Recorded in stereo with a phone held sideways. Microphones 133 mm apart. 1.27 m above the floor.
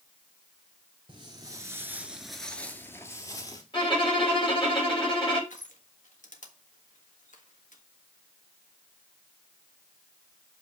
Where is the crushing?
70° left (ahead or behind), 1.5 m.